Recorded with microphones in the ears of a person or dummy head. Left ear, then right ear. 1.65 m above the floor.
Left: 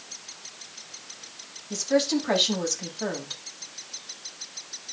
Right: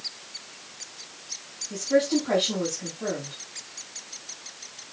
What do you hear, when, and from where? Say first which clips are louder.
1.7 s a woman speaking: right 1 dB; 70° left (ahead or behind), 4.5 m